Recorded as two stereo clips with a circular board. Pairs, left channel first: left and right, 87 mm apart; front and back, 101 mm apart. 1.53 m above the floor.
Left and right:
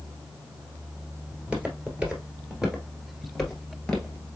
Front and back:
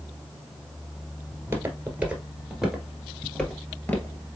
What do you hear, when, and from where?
1.3 s footsteps: 145° right, 1.7 m; by 4.4 s 25° left, 1.6 m